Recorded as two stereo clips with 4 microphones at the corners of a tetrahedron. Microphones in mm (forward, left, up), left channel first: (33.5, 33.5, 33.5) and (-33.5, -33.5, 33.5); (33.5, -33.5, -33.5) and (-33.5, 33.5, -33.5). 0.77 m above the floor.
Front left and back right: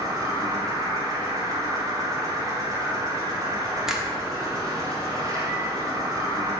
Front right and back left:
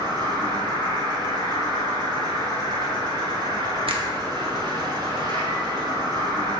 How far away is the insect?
About 3 m.